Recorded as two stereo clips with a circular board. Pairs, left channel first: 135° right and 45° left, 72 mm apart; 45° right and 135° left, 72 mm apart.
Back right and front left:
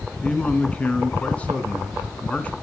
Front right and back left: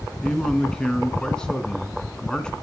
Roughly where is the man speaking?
Right.